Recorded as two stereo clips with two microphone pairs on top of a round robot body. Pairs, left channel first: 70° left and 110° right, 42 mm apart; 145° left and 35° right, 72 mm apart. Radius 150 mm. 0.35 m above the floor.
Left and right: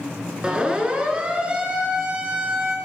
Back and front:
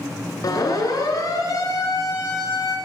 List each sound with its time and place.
0.4 s a siren: 175° right, 7.5 m; by 2.8 s 170° right, 8.5 m